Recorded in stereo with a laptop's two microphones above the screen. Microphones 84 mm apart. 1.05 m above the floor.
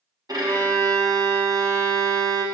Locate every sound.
0.3 s a violin: 45° right (ahead or behind), 0.7 m